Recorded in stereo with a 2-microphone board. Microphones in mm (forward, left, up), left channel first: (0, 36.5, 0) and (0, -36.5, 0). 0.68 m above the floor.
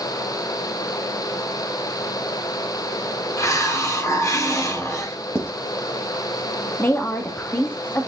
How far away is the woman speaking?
About 1.3 m.